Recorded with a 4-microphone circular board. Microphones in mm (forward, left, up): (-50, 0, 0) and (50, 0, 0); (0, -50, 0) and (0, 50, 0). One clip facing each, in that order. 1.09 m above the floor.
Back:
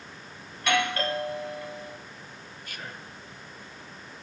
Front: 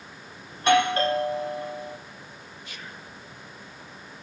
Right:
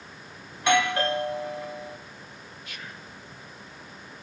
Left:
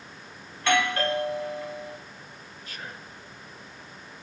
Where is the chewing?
No chewing in this recording.